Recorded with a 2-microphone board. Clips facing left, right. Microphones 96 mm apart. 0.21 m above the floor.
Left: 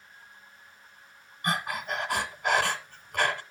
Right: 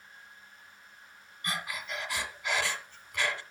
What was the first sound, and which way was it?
Breathing, 50° left (ahead or behind).